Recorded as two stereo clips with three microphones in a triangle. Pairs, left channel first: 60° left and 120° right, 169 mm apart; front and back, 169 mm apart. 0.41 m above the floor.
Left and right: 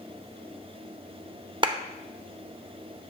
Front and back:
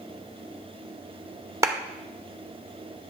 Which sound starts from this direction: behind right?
A clap, at 1.6 s.